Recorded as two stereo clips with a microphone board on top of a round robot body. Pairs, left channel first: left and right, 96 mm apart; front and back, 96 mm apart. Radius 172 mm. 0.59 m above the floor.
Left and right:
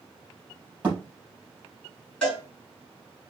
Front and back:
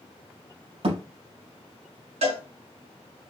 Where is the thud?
165° right, 3.5 m.